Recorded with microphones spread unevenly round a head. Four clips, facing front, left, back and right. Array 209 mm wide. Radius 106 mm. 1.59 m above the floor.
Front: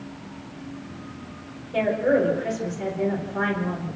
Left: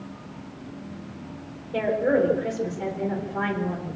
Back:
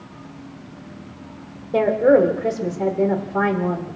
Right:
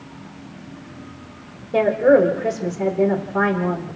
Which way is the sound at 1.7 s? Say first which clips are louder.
Right 8 dB, back 6 dB; 135° right.